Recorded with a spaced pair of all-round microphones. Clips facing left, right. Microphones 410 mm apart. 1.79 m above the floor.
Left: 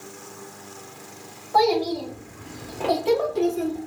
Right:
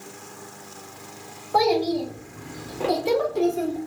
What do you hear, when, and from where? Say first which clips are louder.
1.5 s a child speaking: even; 50° right (ahead or behind), 1.1 m; by 3.8 s 15° left (ahead or behind), 1.3 m